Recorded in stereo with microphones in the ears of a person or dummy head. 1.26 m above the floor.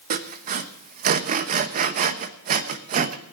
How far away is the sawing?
About 0.8 m.